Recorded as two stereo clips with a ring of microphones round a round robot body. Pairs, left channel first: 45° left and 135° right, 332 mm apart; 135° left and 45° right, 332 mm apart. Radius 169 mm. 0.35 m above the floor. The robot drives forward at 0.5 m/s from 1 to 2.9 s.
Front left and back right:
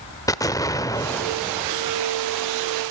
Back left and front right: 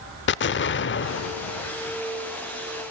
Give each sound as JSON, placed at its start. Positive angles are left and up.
{"t": 0.3, "sound": "an explosion", "azimuth_deg": 115, "distance_m": 0.7}